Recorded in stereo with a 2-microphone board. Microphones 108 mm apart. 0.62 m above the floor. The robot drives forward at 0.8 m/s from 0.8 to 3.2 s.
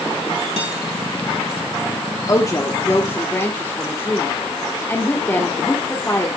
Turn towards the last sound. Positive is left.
turn(degrees=25)  # may be behind; listen again after turning